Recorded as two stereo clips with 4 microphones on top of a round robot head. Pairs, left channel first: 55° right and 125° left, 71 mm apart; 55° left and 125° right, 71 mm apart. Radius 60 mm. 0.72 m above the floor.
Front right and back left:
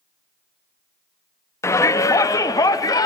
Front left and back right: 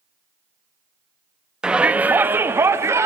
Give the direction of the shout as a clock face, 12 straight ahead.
2 o'clock.